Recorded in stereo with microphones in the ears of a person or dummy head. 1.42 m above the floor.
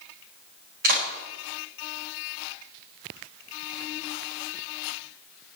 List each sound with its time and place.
0.8 s a clap: 55° right (ahead or behind), 6 m